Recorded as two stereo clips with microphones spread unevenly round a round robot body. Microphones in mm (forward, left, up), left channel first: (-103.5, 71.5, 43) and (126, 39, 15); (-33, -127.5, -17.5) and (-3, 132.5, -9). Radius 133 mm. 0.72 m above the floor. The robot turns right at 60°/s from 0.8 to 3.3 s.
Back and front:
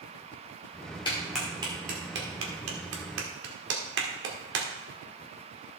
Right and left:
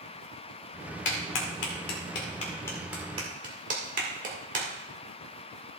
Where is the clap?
115° right, 2 m; by 4.7 s 20° left, 2 m.